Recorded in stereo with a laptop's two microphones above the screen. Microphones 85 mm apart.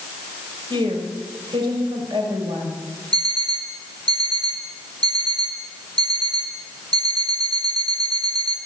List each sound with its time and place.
0.7 s a woman speaking: 70° right (ahead or behind), 6 m
3.1 s an alarm clock: 60° right (ahead or behind), 3.5 m